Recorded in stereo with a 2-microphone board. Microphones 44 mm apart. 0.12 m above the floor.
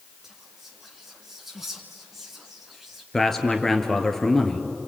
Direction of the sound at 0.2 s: 10° right (ahead or behind).